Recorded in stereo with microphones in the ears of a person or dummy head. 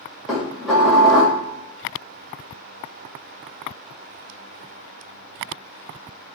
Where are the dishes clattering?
Centre (ahead or behind), 1.9 m.